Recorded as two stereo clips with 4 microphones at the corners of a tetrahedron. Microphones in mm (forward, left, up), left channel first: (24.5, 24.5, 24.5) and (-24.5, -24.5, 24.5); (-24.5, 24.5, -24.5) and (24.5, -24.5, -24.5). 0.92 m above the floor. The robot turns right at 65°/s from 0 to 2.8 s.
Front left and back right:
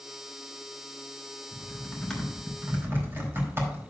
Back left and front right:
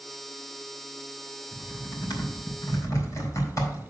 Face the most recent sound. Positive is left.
turn(degrees=175)